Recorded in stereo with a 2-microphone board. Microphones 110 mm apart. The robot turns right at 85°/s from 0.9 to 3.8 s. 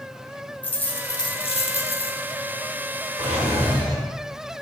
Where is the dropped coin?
20° left, 0.6 m; by 2.2 s 130° left, 0.6 m.